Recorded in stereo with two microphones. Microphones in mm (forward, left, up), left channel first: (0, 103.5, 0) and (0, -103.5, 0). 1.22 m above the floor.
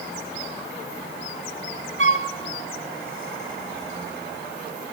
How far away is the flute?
About 0.6 m.